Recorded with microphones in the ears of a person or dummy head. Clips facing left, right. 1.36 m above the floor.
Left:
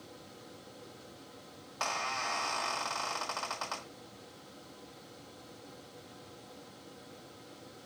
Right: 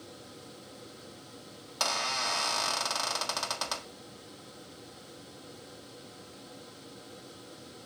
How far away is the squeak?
About 1.4 m.